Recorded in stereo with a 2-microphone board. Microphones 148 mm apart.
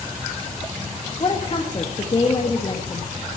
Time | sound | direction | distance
1.2 | a woman speaking | 35° left (ahead or behind) | 1.4 m